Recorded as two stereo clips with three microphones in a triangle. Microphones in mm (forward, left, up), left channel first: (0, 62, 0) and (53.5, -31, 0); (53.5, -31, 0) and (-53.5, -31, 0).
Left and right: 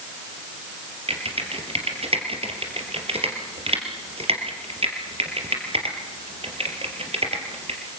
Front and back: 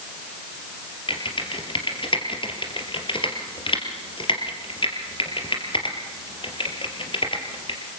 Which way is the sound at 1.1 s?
35° right.